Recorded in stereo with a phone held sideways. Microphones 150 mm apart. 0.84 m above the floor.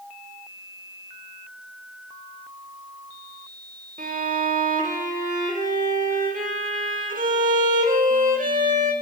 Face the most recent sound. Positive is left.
turn(degrees=-65)  # may be behind; listen again after turning